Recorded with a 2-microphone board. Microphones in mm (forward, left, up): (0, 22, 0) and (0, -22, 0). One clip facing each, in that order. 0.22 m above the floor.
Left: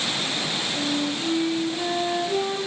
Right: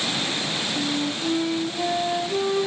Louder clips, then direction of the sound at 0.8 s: Left 1 dB; 40° left (ahead or behind).